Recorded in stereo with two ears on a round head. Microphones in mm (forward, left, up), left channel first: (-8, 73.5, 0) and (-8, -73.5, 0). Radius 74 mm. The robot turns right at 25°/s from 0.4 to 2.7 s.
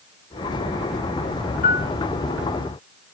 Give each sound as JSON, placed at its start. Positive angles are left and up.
{"t": 1.6, "sound": "a piano", "side_deg": 55, "distance_m": 0.9}